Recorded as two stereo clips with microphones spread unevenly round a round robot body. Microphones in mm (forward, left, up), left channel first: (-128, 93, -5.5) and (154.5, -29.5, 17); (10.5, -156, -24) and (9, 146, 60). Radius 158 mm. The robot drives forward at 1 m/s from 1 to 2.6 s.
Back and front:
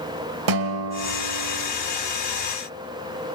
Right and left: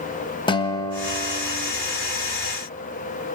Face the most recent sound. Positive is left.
turn(degrees=-130)